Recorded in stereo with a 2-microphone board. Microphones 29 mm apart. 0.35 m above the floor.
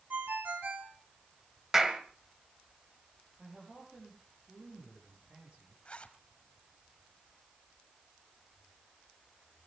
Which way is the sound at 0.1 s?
65° right (ahead or behind).